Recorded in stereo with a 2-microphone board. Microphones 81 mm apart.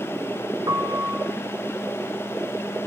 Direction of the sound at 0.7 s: 50° right (ahead or behind).